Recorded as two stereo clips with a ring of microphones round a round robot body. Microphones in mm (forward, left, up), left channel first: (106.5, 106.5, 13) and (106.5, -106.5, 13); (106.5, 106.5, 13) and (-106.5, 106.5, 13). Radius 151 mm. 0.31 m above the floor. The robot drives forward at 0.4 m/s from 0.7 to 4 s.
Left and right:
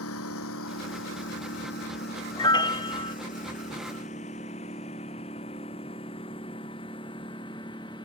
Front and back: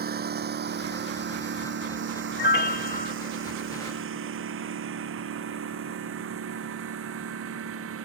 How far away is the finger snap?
No finger snap in this recording.